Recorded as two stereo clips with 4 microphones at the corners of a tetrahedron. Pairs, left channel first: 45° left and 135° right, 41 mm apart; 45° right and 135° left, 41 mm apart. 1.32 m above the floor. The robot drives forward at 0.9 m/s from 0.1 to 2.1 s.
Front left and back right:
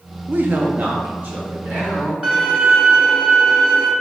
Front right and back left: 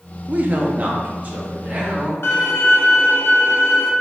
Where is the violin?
70° right, 0.9 m.